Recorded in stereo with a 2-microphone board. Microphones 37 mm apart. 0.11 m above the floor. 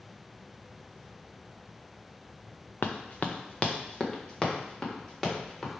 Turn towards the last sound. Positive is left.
turn(degrees=10)  # may be behind; listen again after turning